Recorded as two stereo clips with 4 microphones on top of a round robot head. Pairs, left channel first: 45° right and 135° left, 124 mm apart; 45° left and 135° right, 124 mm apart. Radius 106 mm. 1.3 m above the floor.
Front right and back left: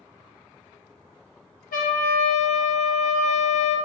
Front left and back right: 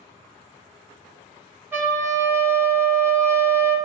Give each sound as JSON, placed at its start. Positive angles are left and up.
{"t": 1.7, "sound": "a trumpet", "azimuth_deg": -65, "distance_m": 0.9}